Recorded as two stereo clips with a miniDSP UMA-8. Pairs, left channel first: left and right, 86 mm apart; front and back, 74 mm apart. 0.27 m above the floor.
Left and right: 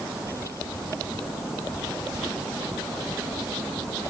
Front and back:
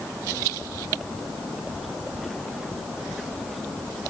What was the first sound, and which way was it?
Only background noise.